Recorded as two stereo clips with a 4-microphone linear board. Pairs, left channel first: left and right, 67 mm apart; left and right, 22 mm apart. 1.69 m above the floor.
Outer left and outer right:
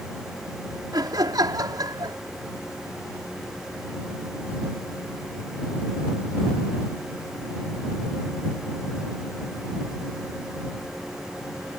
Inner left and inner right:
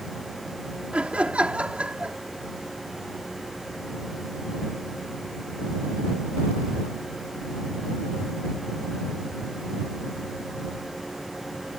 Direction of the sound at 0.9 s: 80° right.